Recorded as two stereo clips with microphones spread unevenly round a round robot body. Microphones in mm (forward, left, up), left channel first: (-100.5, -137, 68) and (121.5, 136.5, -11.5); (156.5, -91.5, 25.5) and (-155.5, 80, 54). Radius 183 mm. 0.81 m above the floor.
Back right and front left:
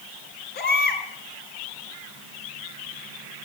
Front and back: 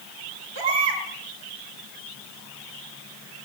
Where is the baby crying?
170° left, 6 m.